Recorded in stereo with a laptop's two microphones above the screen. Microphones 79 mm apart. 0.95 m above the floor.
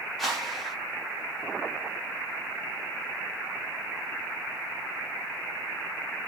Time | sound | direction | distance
0.2 | a whoosh | centre (ahead or behind) | 1.1 m